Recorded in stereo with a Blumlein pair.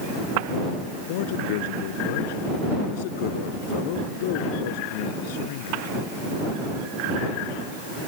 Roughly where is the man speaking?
Ahead left.